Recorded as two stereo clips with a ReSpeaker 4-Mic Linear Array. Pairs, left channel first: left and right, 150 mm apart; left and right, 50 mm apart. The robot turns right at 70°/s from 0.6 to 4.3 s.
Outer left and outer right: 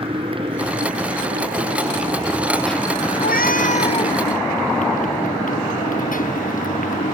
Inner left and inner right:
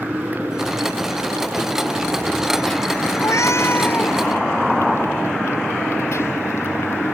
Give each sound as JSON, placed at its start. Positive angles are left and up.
{"t": 0.0, "sound": "a motorcycle", "azimuth_deg": -145}
{"t": 3.2, "sound": "a cat meowing", "azimuth_deg": 90}